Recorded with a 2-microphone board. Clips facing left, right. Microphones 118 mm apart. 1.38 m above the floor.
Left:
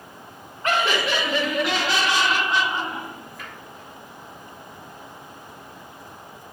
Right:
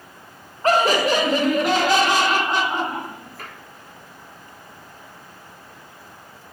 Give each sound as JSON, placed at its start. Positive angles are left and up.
{"t": 0.6, "sound": "laughter", "side_deg": -40, "distance_m": 1.3}